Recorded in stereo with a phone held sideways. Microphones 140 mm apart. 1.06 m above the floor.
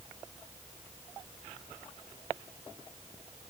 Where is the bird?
No bird in this recording.